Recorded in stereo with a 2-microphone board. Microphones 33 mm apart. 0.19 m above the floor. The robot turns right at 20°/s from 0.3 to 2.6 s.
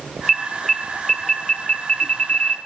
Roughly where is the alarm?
Centre.